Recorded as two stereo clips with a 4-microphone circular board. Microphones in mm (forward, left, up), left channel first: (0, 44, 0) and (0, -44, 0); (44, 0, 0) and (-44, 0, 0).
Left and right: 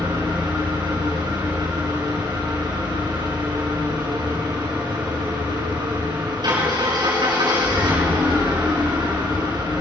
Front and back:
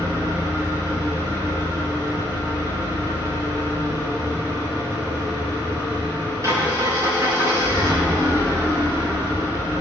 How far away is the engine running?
About 6 m.